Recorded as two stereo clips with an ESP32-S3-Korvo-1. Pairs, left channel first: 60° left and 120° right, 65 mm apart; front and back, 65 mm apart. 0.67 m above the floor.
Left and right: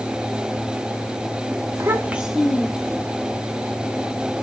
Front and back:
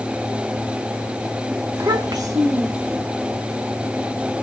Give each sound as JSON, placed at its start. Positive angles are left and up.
{"t": 1.8, "sound": "a child speaking", "azimuth_deg": -155, "distance_m": 0.8}